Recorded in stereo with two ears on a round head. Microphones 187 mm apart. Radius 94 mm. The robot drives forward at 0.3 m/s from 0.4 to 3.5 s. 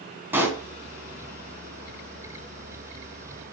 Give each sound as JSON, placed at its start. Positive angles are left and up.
{"t": 0.3, "sound": "a pop", "side_deg": -10, "distance_m": 3.0}